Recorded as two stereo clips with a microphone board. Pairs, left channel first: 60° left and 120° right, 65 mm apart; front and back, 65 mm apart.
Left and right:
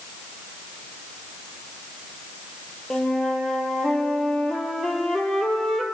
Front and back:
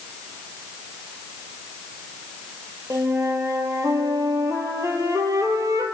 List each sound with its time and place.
2.9 s a flute: 145° left, 1.6 m